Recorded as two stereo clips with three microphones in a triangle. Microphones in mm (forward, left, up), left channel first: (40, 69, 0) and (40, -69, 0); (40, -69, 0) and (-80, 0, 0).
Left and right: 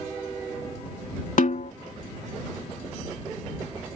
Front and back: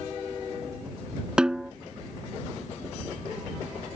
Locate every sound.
1.4 s a snare drum: 65° left